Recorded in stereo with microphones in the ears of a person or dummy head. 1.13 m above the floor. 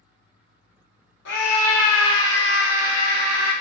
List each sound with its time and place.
1.2 s a scream: 50° left (ahead or behind), 0.8 m; by 3.5 s 40° right (ahead or behind), 0.8 m